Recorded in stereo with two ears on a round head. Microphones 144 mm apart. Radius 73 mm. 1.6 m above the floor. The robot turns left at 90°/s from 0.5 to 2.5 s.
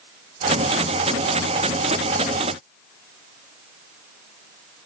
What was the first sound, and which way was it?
Only background noise.